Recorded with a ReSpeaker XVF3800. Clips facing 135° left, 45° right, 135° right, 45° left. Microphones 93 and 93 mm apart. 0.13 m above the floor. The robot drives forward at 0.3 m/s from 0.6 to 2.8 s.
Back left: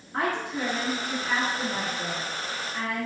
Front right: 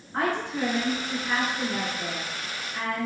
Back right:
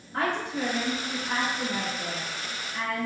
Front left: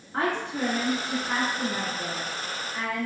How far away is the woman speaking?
About 1.8 m.